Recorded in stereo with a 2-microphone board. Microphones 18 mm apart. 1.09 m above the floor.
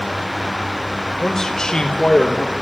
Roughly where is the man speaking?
Centre.